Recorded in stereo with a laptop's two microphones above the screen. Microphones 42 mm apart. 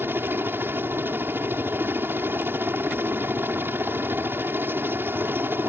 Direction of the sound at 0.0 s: 60° right (ahead or behind).